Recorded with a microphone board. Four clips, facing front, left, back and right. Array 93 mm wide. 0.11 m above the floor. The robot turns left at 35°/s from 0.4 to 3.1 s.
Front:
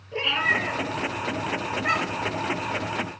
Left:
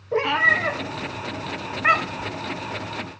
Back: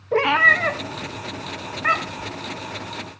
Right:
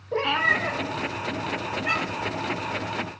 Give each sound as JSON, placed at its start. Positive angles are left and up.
{"t": 0.1, "sound": "a cat meowing", "azimuth_deg": 175, "distance_m": 1.1}